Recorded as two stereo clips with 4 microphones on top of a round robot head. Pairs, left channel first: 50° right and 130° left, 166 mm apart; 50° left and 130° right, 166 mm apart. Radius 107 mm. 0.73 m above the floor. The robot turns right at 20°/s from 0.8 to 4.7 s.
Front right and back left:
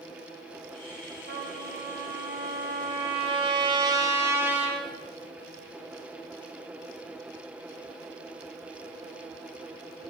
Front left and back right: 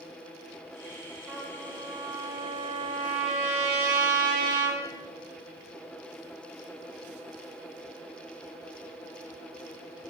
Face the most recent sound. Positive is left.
turn(degrees=-145)